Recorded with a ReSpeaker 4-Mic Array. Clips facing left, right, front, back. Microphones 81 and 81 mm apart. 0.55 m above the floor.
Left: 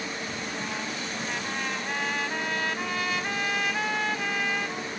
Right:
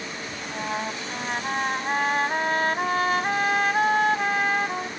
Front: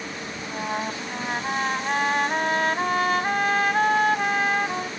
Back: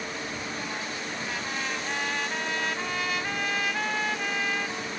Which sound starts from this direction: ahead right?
A trumpet, at 0.4 s.